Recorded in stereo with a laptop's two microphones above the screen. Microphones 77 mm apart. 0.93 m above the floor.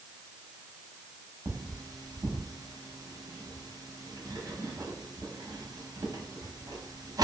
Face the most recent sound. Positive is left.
turn(degrees=-50)  # may be behind; listen again after turning